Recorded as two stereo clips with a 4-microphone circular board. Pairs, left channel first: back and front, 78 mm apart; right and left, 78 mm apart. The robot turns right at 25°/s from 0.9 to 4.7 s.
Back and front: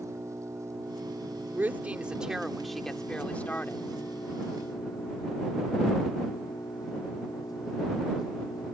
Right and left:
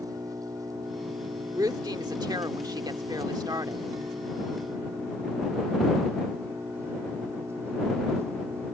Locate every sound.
0.0 s an engine running: 50° left; by 8.8 s 145° left
1.6 s a woman speaking: 65° left; by 3.9 s 120° left